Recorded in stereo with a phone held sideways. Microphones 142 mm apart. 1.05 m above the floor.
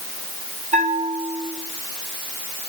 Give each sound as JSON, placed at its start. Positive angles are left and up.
{"t": 0.7, "sound": "a bell", "side_deg": -50, "distance_m": 8.0}